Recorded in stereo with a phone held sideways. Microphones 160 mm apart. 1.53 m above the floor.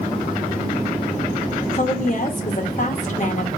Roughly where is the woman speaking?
Left.